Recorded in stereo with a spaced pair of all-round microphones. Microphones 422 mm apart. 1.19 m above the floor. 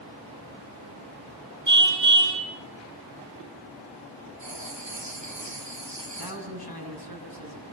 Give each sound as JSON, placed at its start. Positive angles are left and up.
{"t": 1.7, "sound": "a car horn", "side_deg": -45, "distance_m": 9.5}
{"t": 4.4, "sound": "writing", "side_deg": -85, "distance_m": 8.5}
{"t": 6.1, "sound": "a man speaking", "side_deg": -55, "distance_m": 9.0}